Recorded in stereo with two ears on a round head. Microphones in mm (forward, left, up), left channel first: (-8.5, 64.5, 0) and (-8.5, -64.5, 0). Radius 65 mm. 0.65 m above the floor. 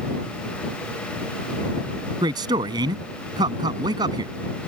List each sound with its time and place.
2.2 s a man speaking: 30° right (ahead or behind)